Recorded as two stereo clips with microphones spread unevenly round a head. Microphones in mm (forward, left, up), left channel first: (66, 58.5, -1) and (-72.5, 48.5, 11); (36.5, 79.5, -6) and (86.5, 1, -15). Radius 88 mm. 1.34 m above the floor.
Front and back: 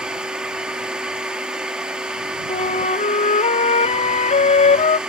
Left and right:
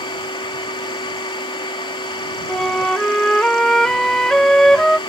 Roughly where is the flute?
Ahead left.